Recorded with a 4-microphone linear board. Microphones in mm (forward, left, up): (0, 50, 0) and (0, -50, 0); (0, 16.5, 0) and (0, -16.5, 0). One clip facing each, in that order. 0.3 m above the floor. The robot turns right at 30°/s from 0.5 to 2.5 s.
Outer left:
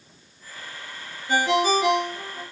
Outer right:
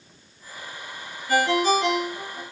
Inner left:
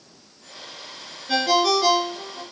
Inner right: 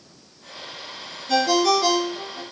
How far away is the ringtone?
About 2 m.